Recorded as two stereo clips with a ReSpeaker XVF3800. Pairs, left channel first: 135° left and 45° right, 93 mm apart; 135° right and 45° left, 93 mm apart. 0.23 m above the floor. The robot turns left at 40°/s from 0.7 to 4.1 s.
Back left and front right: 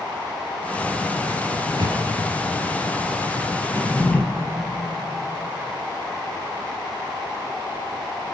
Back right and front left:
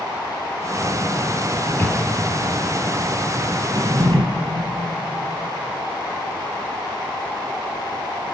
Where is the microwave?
60° right, 3 m; by 2.0 s 80° right, 3 m.